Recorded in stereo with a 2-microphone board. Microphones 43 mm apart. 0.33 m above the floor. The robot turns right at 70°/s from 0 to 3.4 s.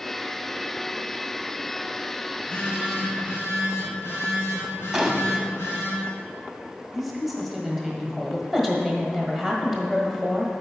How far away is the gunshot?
About 0.7 m.